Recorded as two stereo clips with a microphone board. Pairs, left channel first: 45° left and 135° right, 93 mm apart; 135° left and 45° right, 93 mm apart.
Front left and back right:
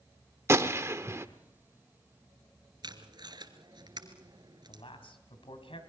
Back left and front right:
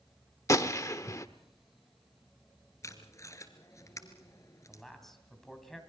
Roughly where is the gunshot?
Behind.